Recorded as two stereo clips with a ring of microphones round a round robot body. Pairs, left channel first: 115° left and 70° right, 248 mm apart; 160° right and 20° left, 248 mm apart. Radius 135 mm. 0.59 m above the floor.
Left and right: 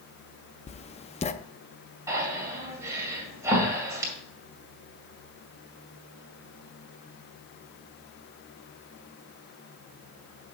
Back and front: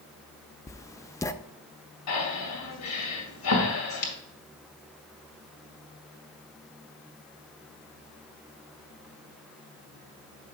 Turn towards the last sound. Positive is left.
turn(degrees=-145)